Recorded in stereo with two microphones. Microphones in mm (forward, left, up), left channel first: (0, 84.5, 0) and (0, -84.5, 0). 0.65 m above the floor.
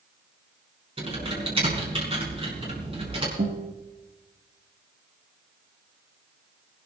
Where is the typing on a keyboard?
35° right (ahead or behind), 5.5 m.